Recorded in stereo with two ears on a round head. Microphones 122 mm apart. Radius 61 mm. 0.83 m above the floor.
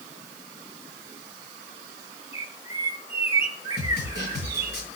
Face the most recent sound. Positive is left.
turn(degrees=90)